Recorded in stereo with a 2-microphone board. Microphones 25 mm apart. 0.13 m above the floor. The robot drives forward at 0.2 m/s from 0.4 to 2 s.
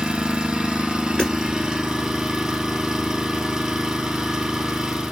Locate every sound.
0.0 s an engine running: 35° right (ahead or behind), 0.8 m; by 5.1 s 30° right (ahead or behind), 1.1 m
1.2 s hammering: 25° left (ahead or behind), 1.6 m